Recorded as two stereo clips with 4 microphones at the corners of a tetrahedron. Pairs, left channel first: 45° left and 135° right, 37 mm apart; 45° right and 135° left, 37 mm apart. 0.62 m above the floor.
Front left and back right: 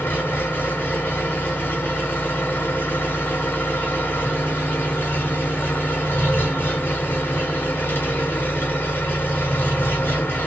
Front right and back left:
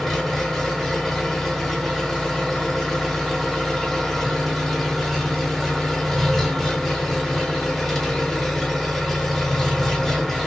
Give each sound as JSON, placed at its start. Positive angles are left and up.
{"t": 0.0, "sound": "an engine running", "azimuth_deg": 30, "distance_m": 1.4}